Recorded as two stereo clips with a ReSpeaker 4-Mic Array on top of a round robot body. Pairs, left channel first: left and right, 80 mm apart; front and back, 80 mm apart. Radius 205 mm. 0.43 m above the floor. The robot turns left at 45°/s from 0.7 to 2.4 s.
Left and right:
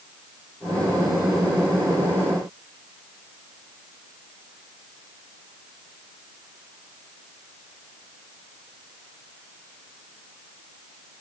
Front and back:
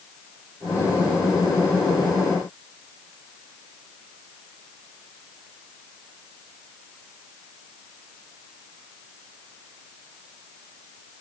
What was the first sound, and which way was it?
Only background noise.